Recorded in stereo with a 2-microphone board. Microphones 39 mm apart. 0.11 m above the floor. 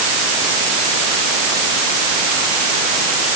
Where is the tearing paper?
I don't hear tearing paper.